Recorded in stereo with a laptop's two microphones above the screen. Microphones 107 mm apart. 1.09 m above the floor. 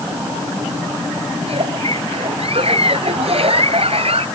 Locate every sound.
1.4 s a giggle: 70° right (ahead or behind)